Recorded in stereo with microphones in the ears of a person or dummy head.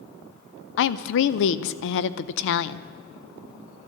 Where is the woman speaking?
65° left (ahead or behind), 0.6 m.